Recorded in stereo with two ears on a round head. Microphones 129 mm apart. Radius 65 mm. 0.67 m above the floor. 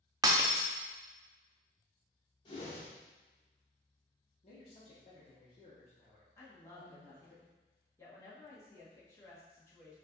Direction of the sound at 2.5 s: 35° left (ahead or behind).